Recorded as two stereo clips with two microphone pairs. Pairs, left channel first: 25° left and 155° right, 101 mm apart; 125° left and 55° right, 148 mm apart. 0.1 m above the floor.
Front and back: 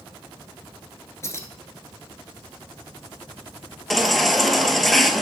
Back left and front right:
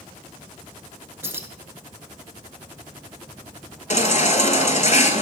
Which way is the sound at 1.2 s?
Straight ahead.